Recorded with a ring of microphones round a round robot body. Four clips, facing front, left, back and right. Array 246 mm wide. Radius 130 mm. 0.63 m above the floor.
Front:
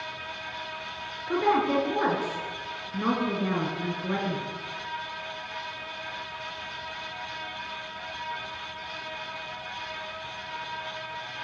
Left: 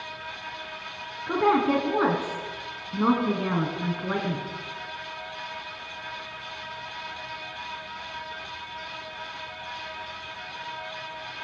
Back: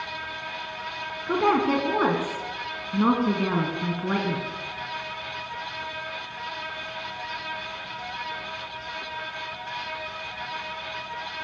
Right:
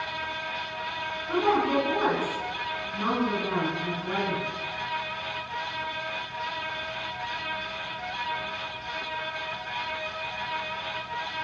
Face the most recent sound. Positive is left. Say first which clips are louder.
# left 2 dB, back 2 dB
turn(degrees=145)